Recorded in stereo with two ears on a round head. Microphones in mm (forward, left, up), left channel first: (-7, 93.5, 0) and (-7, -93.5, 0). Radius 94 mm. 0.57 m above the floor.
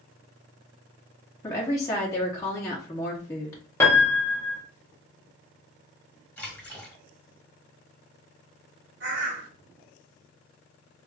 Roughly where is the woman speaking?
Centre.